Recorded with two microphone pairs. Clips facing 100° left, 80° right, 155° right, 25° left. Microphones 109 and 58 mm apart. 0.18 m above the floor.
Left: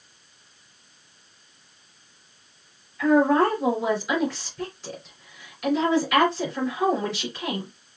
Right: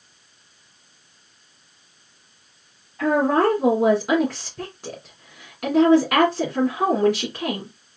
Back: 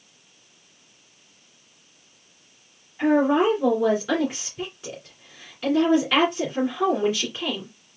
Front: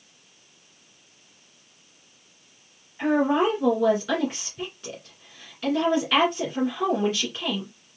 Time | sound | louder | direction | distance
3.0 | a woman speaking | even, back 2 dB | 75° right | 2 m